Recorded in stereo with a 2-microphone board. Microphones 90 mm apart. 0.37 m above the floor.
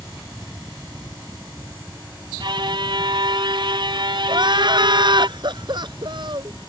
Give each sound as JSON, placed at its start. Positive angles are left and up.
{"t": 2.4, "sound": "a violin", "side_deg": -60}
{"t": 4.3, "sound": "crying", "side_deg": -60}